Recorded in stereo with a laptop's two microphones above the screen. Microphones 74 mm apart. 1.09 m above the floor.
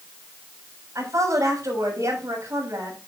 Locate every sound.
0.9 s a woman speaking: 45° right (ahead or behind), 7.5 m